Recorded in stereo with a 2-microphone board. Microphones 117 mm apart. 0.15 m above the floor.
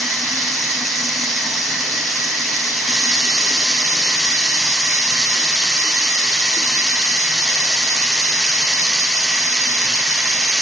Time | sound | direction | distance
0.0 | running water | centre (ahead or behind) | 0.8 m